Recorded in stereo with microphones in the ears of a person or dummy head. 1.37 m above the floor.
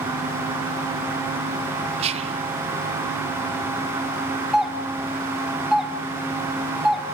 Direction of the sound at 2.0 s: 30° right (ahead or behind).